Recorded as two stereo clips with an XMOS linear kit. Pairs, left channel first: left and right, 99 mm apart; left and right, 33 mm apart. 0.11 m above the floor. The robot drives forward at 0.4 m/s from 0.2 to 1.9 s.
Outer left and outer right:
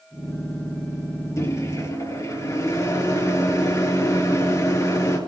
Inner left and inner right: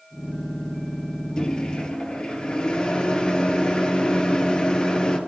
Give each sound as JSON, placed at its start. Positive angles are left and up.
{"t": 1.4, "sound": "a microwave", "side_deg": 30, "distance_m": 2.5}